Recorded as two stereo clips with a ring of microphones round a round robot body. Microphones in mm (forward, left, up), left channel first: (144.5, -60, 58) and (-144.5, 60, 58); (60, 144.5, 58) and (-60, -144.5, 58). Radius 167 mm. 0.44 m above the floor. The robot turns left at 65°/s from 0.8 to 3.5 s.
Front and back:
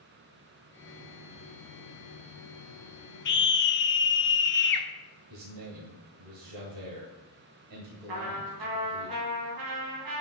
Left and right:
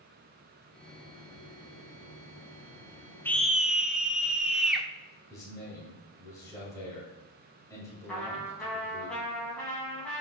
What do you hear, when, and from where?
3.2 s a scream: 10° right, 0.9 m; by 4.9 s 25° right, 0.9 m
5.3 s a man speaking: 145° left, 2 m
8.1 s a trumpet: 155° left, 3 m